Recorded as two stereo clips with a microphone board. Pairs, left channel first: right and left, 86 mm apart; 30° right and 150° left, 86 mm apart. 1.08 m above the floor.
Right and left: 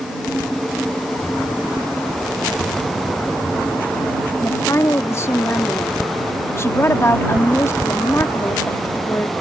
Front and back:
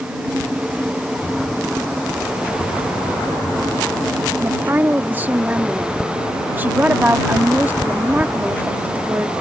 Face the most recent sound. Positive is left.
turn(degrees=-145)